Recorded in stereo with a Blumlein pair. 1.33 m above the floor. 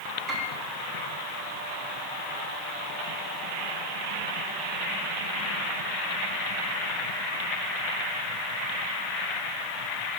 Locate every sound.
0.3 s a piano: 30° right, 1.6 m